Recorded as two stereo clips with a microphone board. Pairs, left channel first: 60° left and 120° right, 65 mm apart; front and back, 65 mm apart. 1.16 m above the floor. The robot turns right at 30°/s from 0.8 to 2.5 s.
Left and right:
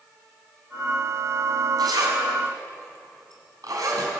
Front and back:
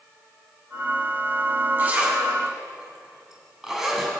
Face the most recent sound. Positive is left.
turn(degrees=-100)